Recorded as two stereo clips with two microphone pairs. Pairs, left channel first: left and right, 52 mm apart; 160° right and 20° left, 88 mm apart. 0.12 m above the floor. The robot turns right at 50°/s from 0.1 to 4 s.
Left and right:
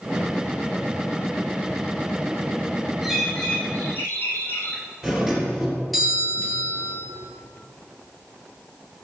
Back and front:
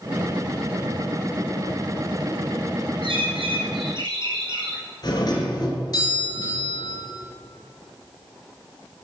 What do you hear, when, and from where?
3.0 s a bird: 5° right, 3 m; by 4.8 s 45° left, 3 m
5.0 s a doorbell: 175° right, 3.5 m